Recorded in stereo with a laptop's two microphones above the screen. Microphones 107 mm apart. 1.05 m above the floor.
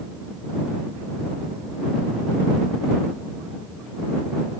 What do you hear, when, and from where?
Only background noise.